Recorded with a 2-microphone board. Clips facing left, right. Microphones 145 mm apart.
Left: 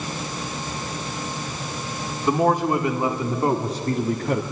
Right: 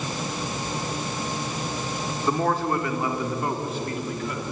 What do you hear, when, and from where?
2.3 s a man speaking: 10° left (ahead or behind), 2.5 m; by 4.4 s 55° left (ahead or behind), 2.0 m